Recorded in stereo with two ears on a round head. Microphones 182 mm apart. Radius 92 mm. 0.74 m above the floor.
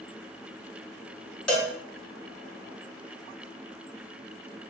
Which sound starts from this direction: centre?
A cowbell, at 1.5 s.